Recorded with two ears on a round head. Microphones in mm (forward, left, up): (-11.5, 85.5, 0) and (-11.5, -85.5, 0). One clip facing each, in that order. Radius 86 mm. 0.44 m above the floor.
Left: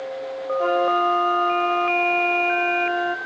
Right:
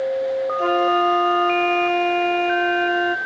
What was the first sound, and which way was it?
A flute, 25° right (ahead or behind).